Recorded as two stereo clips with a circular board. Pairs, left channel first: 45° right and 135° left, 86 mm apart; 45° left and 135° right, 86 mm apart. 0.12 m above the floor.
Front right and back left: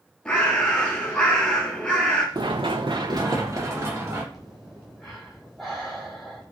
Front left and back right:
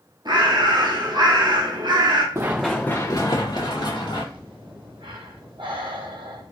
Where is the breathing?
135° right, 1.1 m.